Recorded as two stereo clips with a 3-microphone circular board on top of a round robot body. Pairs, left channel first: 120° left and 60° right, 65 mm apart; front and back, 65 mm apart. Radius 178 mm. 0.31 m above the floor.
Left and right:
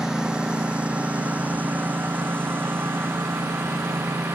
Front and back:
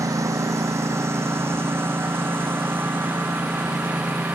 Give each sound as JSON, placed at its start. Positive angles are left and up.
{"t": 0.0, "sound": "a lawn mower", "azimuth_deg": -145}